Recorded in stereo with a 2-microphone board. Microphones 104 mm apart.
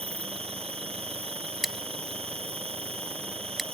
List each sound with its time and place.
0.0 s an insect: 70° right (ahead or behind)
1.6 s scissors: centre (ahead or behind)